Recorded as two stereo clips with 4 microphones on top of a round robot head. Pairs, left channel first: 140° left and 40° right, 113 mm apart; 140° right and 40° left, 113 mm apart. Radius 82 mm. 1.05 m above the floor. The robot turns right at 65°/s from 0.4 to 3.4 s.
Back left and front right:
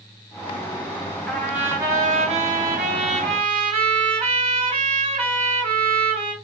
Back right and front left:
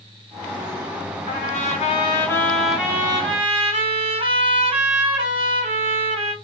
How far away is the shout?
I don't hear a shout.